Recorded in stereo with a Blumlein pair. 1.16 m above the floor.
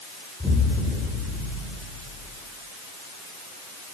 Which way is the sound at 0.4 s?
5° left.